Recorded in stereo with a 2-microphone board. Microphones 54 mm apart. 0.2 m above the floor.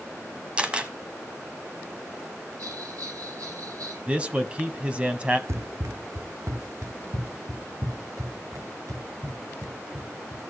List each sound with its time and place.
0.6 s a camera shutter: 20° right (ahead or behind), 1.1 m
2.6 s a bell: 80° right, 7.5 m
4.1 s a man speaking: 25° right (ahead or behind), 1.1 m
5.5 s running footsteps: 55° right (ahead or behind), 0.7 m; by 10.4 s 80° right, 3.5 m